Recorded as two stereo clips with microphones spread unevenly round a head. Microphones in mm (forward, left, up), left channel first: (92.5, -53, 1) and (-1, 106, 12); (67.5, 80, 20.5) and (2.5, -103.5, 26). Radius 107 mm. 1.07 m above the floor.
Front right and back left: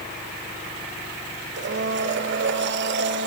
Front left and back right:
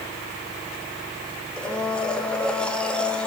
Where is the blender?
155° left, 1.6 m.